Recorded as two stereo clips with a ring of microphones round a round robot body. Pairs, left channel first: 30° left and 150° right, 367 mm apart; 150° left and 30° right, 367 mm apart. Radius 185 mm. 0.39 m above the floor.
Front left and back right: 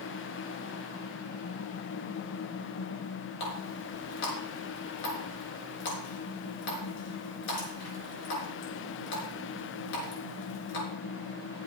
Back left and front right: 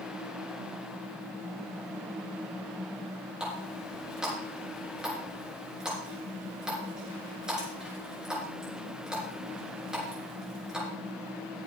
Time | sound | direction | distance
3.4 | a running tap | 60° left | 4.5 m